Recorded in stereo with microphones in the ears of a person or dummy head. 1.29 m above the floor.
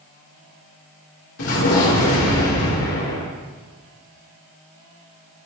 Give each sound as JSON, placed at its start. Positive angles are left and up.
{"t": 1.4, "sound": "an explosion", "side_deg": 70, "distance_m": 2.5}